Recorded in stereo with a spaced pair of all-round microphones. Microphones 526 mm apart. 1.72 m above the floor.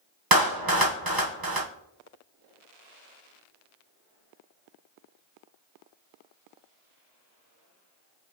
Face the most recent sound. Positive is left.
turn(degrees=-40)  # may be behind; listen again after turning